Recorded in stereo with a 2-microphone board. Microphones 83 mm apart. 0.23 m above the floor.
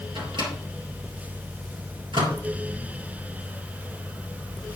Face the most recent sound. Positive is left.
turn(degrees=-70)  # may be behind; listen again after turning